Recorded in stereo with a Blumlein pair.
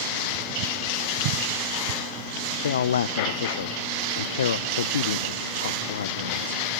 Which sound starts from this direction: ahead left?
A man speaking, at 2.6 s.